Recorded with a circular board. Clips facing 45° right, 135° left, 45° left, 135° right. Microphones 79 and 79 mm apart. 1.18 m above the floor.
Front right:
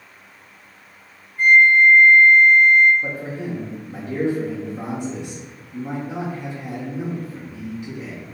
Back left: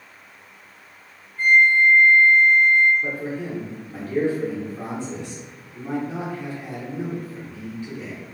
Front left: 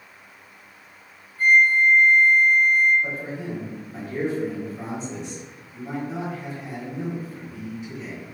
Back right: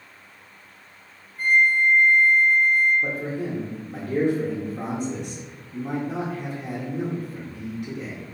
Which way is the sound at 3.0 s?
115° right.